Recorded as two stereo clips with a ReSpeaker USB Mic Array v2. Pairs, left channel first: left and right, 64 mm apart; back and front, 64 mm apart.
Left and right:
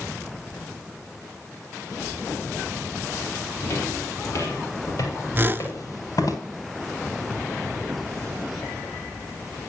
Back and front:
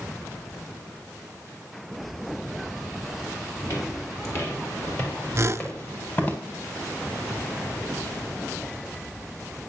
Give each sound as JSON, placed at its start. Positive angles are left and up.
{"t": 3.6, "sound": "footsteps", "azimuth_deg": 140, "distance_m": 7.0}
{"t": 5.3, "sound": "a whoosh", "azimuth_deg": -35, "distance_m": 0.6}